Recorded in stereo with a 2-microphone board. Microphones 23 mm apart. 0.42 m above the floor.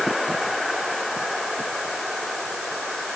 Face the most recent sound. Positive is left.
No sound to turn to.